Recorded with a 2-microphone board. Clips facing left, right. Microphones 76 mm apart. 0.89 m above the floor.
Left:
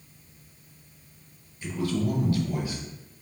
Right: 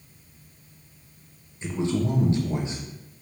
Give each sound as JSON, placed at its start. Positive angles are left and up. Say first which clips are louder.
{"t": 1.6, "sound": "a man speaking", "louder": "right 2 dB", "side_deg": -25, "distance_m": 0.6}